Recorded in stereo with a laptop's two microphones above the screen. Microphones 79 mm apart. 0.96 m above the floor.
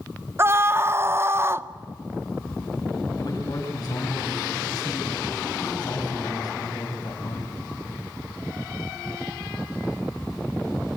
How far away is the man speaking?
About 5.5 m.